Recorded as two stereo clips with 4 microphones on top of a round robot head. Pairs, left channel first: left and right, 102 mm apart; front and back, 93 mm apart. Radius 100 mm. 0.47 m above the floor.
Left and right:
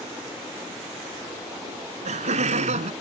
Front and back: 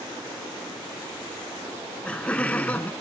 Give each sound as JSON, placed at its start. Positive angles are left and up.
{"t": 1.7, "sound": "laughter", "azimuth_deg": -85}